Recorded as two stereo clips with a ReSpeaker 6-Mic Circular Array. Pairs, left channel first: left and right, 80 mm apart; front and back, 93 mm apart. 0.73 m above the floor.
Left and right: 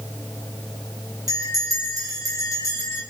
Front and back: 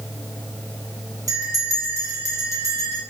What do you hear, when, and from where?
1.3 s a bell: 130° right, 6.5 m